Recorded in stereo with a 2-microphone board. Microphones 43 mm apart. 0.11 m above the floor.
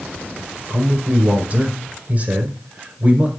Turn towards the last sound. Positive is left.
turn(degrees=-30)  # may be behind; listen again after turning